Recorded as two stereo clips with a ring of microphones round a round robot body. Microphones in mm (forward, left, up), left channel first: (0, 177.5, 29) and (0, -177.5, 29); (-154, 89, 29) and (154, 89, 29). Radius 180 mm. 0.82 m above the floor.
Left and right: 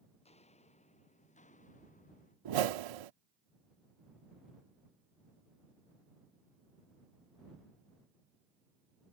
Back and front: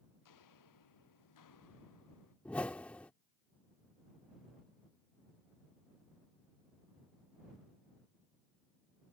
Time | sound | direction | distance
0.2 | footsteps | 165° left | ?
2.5 | a whoosh | 95° right | ?